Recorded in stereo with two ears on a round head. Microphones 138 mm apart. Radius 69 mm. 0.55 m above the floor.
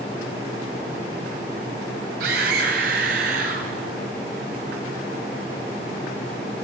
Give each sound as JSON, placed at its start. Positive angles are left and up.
{"t": 2.2, "sound": "a scream", "side_deg": -75, "distance_m": 3.0}